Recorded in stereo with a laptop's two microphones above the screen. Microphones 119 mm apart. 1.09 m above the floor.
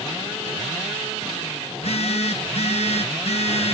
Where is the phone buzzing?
60° left (ahead or behind), 0.9 m.